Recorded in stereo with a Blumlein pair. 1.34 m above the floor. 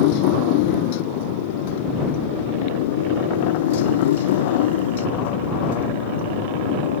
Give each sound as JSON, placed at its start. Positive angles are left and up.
{"t": 0.0, "sound": "a motorcycle", "azimuth_deg": 45}